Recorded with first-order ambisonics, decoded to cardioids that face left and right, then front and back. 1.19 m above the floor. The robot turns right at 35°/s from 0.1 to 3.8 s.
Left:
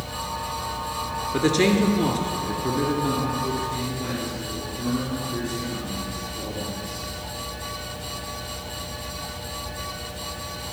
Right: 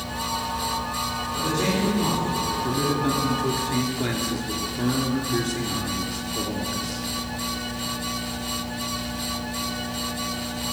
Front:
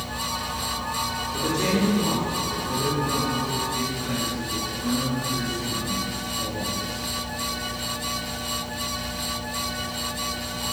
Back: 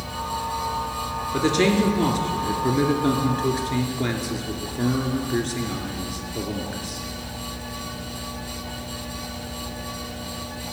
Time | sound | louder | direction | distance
1.3 | a man speaking | left 5 dB, back 5 dB | 130° left | 2.5 m